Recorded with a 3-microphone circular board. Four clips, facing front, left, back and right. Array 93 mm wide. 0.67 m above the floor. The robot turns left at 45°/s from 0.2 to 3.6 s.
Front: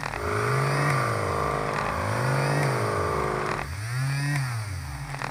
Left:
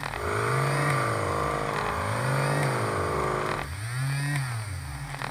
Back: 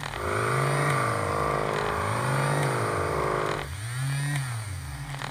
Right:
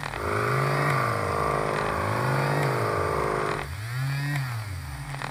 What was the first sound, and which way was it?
Only background noise.